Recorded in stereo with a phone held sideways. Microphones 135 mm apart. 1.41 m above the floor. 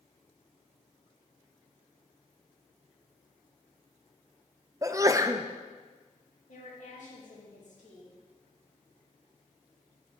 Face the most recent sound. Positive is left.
turn(degrees=60)  # may be behind; listen again after turning